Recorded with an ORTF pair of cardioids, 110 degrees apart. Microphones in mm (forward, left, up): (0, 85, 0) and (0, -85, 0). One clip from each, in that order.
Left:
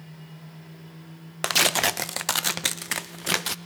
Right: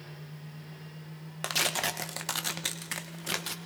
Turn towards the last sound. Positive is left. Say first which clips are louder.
# left 8 dB
turn(degrees=35)